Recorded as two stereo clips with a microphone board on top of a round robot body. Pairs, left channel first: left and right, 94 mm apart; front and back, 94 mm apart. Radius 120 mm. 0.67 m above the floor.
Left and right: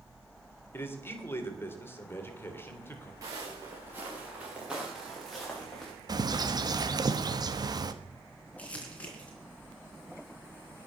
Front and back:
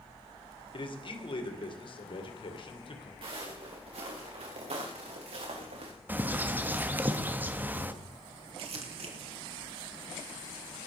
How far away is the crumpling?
About 3 m.